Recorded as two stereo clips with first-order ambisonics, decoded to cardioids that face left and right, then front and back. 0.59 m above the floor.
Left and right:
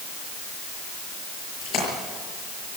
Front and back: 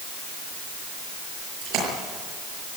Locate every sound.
1.6 s a splash: 140° left, 6.5 m